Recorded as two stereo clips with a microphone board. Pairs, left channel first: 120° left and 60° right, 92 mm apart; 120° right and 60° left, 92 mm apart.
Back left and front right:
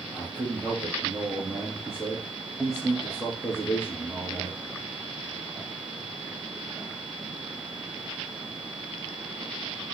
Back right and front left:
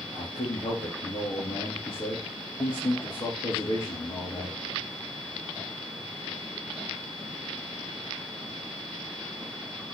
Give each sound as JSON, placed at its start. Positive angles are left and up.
{"t": 0.1, "sound": "a man speaking", "azimuth_deg": -150, "distance_m": 3.5}